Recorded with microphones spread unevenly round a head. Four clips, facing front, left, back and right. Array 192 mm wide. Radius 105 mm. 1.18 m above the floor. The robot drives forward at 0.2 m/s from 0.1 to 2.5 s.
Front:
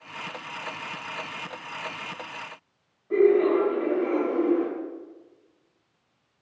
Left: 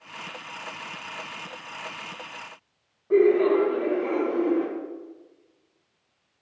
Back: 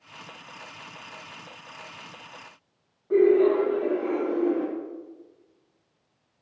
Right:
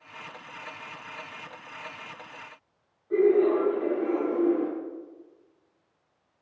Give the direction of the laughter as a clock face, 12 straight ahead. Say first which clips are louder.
Left 2 dB, back 1 dB; 9 o'clock.